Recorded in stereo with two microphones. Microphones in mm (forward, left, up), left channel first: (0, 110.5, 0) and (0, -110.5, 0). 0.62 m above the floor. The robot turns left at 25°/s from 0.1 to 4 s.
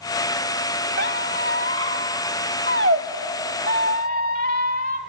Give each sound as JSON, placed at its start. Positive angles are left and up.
{"t": 1.0, "sound": "a squeak", "side_deg": -60, "distance_m": 1.3}